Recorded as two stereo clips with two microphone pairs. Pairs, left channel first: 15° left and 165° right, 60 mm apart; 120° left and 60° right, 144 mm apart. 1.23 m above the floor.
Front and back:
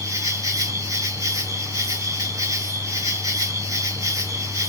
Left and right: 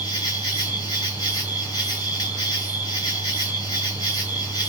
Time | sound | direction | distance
0.0 | an insect | straight behind | 3.5 m